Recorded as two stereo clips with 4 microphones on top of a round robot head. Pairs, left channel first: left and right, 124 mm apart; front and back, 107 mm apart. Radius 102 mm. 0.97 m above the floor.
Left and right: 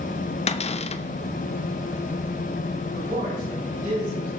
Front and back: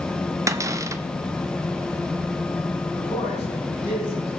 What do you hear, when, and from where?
0.5 s a cupboard door: 120° left, 0.8 m
2.9 s a man speaking: 70° right, 7.5 m